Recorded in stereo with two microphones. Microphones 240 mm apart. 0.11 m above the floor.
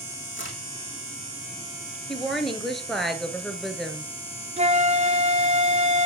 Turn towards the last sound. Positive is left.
turn(degrees=-30)  # may be behind; listen again after turning